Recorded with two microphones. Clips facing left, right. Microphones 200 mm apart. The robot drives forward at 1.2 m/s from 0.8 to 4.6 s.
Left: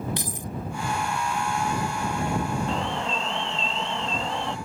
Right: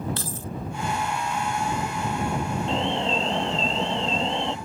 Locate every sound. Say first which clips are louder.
0.2 s keys jangling: even; 15° left (ahead or behind)
2.7 s an alarm: right 3 dB; 25° right (ahead or behind)